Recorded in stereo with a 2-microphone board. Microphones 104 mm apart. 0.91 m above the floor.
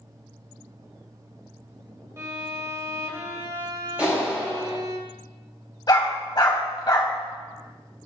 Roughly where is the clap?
Centre.